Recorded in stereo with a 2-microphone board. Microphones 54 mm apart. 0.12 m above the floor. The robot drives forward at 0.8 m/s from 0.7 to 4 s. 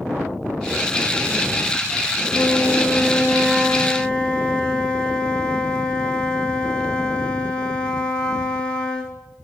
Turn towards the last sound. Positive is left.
turn(degrees=15)  # may be behind; listen again after turning